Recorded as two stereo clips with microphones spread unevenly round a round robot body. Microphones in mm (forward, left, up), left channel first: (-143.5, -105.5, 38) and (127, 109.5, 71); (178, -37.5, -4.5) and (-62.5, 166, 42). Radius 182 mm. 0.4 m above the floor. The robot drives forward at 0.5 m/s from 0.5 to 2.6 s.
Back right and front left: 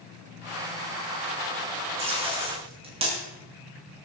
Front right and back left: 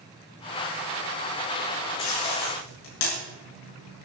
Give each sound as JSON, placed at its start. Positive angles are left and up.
{"t": 2.0, "sound": "tape being pulled", "azimuth_deg": -35, "distance_m": 6.0}